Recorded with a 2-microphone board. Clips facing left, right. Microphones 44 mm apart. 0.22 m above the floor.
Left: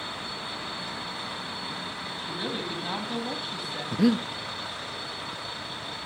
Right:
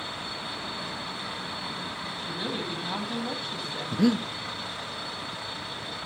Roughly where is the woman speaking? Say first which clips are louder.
Even; centre.